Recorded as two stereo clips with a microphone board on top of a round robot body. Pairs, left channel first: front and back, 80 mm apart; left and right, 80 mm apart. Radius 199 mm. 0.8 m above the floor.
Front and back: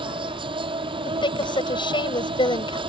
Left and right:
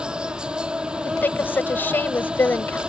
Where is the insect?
170° right.